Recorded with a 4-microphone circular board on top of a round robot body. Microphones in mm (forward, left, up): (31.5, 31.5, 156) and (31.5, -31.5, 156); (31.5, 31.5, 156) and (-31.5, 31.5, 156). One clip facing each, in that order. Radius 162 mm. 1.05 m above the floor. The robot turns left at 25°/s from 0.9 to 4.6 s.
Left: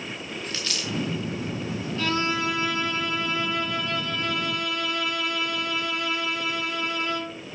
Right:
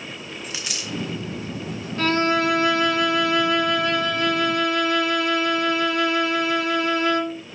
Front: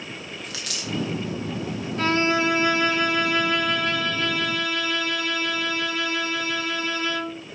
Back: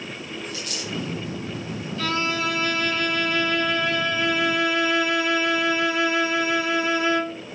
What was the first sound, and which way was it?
A dropped coin, 15° right.